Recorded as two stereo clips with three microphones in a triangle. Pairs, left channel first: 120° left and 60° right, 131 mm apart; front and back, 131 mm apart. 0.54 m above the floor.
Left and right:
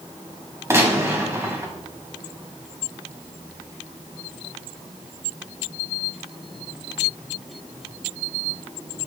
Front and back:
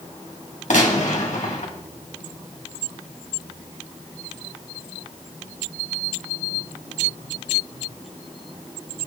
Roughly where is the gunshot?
Ahead.